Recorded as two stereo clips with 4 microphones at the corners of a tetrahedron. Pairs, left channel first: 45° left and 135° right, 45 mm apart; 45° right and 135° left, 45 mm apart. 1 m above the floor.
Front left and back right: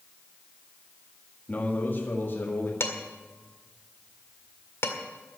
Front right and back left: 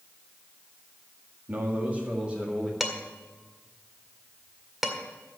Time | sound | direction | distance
1.5 | a man speaking | 95° left | 1.8 m
2.8 | dishes clattering | 50° left | 1.8 m